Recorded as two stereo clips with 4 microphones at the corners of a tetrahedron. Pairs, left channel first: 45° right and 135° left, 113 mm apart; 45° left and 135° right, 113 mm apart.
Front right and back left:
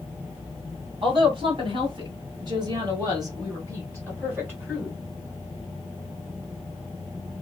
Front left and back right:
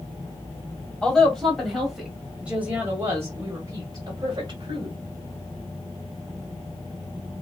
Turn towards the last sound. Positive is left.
turn(degrees=-155)